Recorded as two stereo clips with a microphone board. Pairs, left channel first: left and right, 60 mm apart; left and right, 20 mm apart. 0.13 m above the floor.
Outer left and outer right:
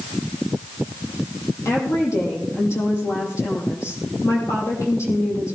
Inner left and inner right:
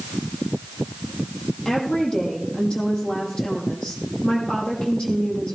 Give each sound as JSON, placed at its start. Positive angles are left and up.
{"t": 1.6, "sound": "a woman speaking", "side_deg": 50, "distance_m": 6.0}